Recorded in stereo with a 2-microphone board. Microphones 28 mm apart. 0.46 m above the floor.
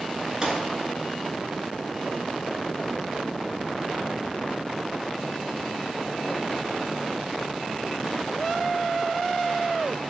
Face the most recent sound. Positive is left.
turn(degrees=-20)  # may be behind; listen again after turning